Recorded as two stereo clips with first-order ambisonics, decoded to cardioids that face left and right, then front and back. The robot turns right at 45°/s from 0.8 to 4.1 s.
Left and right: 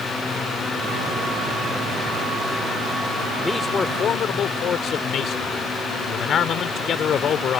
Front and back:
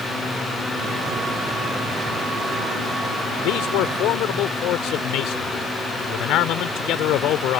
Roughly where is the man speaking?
Ahead.